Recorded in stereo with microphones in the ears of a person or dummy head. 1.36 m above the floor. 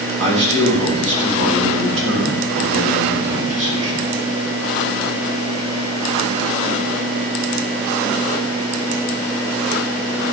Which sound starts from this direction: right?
A man speaking, at 0.2 s.